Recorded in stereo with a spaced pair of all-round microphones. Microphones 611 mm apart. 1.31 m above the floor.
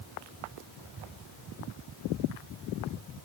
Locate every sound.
Only background noise.